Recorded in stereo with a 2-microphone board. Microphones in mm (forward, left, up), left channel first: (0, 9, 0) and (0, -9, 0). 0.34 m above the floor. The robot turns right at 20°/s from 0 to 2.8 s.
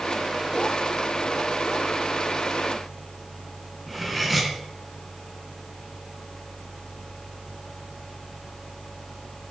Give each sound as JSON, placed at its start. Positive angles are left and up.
{"t": 3.9, "sound": "cutlery clinking", "side_deg": -5, "distance_m": 2.5}